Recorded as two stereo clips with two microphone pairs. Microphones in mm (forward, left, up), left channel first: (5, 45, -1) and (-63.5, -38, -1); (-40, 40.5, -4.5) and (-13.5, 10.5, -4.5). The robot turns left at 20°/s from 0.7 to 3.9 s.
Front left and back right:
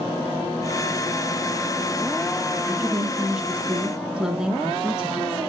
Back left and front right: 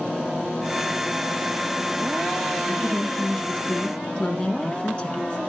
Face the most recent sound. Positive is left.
turn(degrees=155)